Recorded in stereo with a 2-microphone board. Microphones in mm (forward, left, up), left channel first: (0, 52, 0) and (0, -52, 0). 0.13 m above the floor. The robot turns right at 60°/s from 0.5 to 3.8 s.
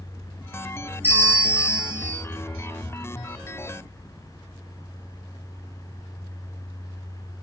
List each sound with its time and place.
1.0 s a bell: 160° right, 1.8 m; by 2.2 s 90° right, 1.8 m